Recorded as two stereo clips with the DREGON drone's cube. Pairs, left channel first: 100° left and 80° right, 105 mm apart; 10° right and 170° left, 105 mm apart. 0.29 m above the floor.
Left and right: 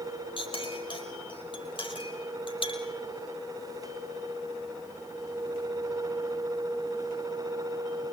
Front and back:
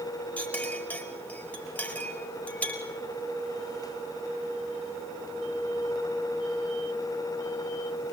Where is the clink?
65° left, 5 m.